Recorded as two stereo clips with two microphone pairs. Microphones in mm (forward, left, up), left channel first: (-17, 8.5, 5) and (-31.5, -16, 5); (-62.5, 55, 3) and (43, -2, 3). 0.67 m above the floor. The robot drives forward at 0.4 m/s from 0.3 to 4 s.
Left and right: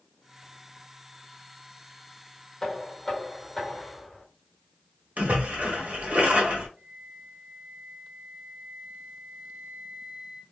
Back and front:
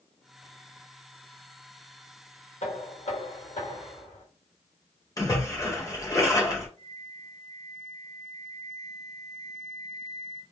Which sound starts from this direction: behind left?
Knocking, at 2.6 s.